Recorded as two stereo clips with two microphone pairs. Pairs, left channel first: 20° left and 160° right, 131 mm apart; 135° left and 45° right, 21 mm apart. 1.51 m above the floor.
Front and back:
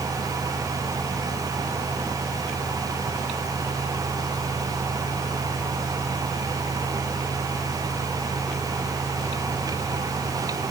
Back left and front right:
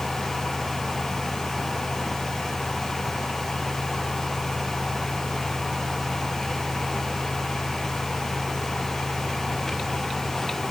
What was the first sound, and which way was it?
Only background noise.